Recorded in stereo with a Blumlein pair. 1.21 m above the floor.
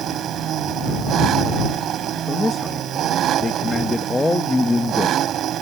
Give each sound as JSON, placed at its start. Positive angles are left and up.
{"t": 0.0, "sound": "an engine running", "azimuth_deg": -30}
{"t": 2.3, "sound": "a man speaking", "azimuth_deg": 5}